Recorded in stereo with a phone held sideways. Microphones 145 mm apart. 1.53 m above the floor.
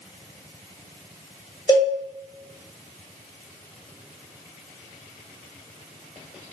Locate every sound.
1.7 s a cowbell: 25° left (ahead or behind), 1.4 m